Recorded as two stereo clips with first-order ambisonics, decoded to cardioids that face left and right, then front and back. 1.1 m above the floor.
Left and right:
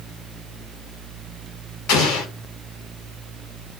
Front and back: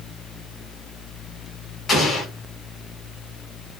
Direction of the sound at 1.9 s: 70° left.